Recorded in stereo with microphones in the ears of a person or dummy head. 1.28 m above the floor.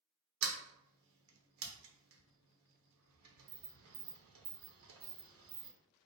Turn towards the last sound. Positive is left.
turn(degrees=-65)  # may be behind; listen again after turning